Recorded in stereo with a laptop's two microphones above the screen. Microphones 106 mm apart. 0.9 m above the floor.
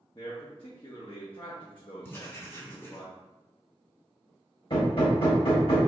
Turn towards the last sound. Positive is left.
turn(degrees=55)  # may be behind; listen again after turning